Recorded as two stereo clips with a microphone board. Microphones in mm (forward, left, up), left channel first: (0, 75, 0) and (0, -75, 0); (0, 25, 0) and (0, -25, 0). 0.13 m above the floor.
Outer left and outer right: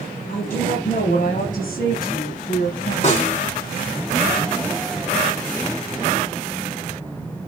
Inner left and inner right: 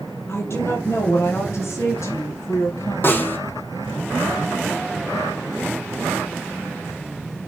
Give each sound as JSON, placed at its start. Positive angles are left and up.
{"t": 0.3, "sound": "a woman speaking", "side_deg": 70, "distance_m": 3.0}
{"t": 3.0, "sound": "a snare drum", "side_deg": 50, "distance_m": 6.5}